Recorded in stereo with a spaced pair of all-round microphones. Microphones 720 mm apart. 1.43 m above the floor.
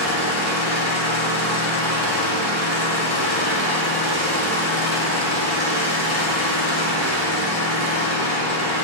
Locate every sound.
0.0 s an engine running: 20° right (ahead or behind), 3 m